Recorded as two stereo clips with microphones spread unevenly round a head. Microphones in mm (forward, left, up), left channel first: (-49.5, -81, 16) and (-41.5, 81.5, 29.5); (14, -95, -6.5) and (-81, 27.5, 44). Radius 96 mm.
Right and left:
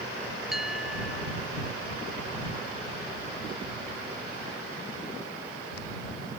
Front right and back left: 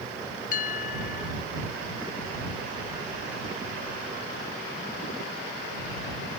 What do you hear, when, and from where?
0.5 s a bell: straight ahead